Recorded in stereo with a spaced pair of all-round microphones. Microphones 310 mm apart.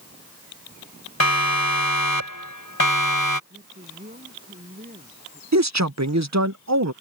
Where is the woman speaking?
30° right (ahead or behind).